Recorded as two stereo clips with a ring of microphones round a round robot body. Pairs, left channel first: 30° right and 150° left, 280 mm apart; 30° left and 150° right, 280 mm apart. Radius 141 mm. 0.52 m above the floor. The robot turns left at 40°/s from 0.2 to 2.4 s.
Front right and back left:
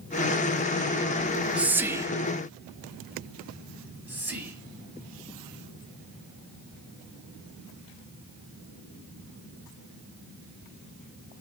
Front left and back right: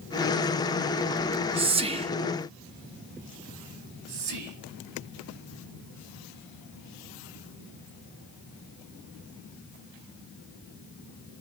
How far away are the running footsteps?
I don't hear running footsteps.